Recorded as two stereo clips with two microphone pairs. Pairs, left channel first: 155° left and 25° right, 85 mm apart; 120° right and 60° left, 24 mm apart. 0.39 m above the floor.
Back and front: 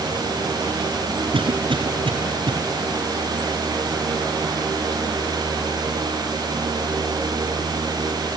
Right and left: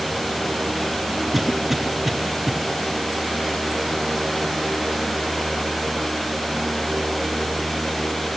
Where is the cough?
25° right, 5.5 m.